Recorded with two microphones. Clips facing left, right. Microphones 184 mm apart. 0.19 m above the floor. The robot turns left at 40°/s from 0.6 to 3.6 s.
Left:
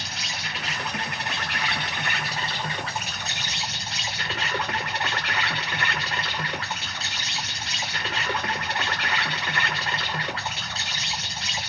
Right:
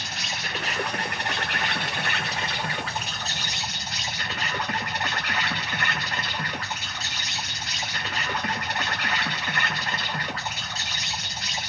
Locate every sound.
0.0 s an insect: 90° right, 3 m; by 11.7 s 150° left, 3 m